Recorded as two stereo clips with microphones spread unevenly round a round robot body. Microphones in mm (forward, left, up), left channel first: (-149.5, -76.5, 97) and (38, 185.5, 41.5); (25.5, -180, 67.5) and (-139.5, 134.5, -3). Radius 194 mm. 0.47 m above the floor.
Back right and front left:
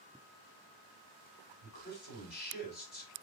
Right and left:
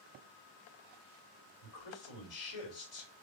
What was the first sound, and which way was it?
A man speaking, 75° right.